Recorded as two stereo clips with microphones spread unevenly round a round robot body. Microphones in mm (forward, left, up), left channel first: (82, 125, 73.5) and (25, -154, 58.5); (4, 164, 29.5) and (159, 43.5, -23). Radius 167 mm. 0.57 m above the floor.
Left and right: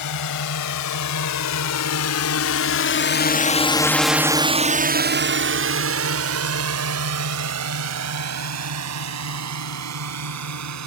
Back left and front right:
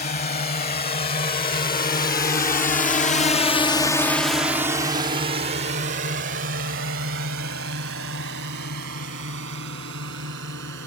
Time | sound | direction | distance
0.0 | a drone | 100° left | ?